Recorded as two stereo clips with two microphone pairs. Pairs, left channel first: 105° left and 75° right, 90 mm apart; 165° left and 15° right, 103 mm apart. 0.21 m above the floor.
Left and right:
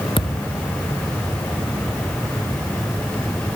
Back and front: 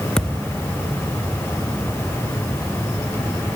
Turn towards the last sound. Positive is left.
turn(degrees=80)